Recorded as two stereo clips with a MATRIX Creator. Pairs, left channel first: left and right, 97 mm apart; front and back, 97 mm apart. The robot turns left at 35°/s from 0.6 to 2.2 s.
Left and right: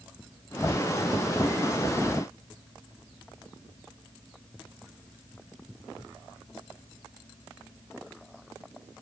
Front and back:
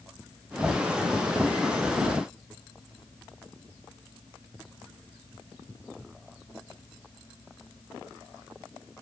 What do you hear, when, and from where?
Only background noise.